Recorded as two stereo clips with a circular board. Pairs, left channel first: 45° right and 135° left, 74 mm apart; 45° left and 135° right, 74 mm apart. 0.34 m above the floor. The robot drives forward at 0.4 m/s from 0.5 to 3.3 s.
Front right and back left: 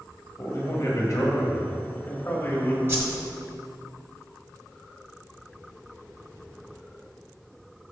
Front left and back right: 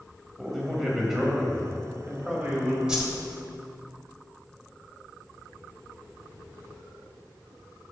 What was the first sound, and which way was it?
A man speaking, 45° right.